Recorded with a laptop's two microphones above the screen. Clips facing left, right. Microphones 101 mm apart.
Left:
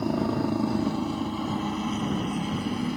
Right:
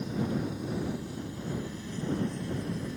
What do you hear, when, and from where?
0.0 s a helicopter: 70° left (ahead or behind)